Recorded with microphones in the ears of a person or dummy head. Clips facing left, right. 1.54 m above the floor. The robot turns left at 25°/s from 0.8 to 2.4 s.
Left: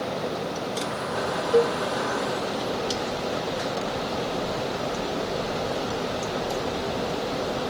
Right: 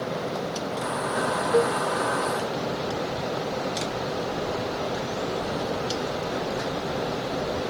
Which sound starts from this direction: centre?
A cowbell, at 1.5 s.